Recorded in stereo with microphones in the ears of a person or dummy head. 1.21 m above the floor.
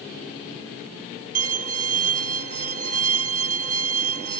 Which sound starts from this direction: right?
A violin, at 1.4 s.